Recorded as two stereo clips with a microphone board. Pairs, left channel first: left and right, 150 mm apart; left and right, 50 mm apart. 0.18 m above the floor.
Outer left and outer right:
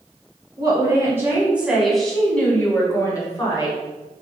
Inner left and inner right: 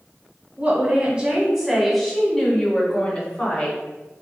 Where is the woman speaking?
30° right (ahead or behind), 1.2 m; by 3.8 s 30° left (ahead or behind), 1.7 m.